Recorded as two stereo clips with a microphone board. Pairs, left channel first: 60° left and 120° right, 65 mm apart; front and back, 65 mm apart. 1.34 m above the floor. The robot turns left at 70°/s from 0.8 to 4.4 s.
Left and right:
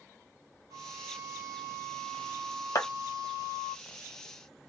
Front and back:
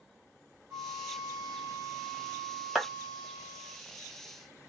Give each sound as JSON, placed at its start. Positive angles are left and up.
{"t": 0.7, "sound": "a flute", "azimuth_deg": -135, "distance_m": 1.3}
{"t": 2.8, "sound": "a clap", "azimuth_deg": 100, "distance_m": 1.4}